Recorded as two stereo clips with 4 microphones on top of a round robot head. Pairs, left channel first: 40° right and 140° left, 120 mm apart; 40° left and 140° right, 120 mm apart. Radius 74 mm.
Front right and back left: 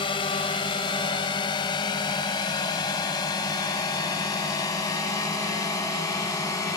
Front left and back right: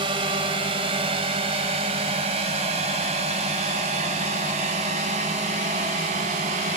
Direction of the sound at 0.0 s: 90° right.